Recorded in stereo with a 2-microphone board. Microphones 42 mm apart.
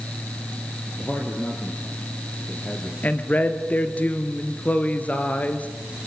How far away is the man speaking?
About 3 m.